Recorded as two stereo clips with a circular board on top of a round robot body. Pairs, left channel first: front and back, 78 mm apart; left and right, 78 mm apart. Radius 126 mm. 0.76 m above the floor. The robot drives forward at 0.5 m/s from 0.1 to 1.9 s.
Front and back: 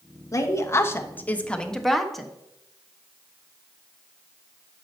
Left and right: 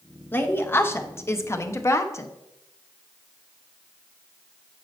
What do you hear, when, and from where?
0.3 s a woman speaking: 35° left, 1.3 m; by 2.3 s 90° left, 1.0 m